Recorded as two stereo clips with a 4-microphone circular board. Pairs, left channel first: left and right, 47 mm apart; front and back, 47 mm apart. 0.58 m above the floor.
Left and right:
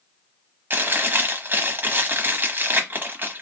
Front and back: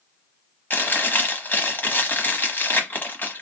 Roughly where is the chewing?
Ahead right.